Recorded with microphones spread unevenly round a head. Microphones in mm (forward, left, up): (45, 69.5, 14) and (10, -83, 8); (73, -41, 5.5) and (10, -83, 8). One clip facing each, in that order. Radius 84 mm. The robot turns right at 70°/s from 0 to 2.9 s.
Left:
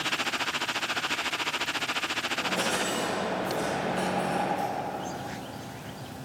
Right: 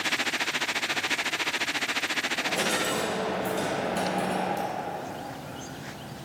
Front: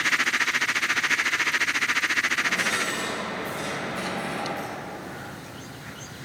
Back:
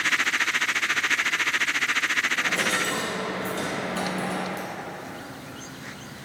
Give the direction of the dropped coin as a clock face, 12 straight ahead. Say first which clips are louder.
Right 1 dB, even; 6 o'clock.